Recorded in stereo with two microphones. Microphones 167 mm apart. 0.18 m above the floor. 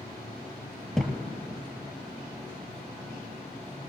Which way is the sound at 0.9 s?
5° left (ahead or behind).